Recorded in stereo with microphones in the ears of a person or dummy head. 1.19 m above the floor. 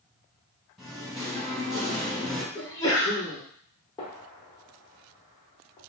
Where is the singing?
Centre (ahead or behind), 0.7 m.